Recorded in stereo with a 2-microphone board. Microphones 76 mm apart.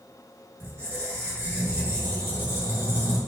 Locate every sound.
0.6 s a squeak: 30° right (ahead or behind), 0.9 m